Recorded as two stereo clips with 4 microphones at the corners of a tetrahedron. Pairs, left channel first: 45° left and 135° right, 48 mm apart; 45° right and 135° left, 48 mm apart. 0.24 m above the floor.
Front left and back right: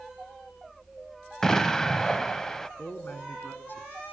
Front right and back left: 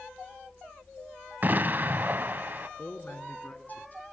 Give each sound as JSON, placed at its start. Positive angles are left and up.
{"t": 1.4, "sound": "an explosion", "azimuth_deg": 120, "distance_m": 0.6}
{"t": 2.8, "sound": "a man speaking", "azimuth_deg": 0, "distance_m": 2.5}